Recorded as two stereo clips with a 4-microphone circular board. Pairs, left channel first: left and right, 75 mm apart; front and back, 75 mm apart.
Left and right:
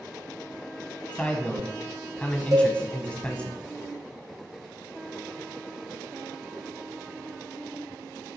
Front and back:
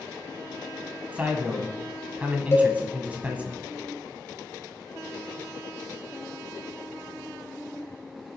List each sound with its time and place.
1.1 s a man speaking: 140° left, 1.2 m
2.5 s a cowbell: 55° right, 1.9 m